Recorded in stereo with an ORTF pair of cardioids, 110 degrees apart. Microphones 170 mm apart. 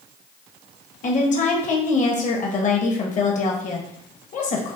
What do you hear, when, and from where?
1.0 s a woman speaking: 45° left, 1.3 m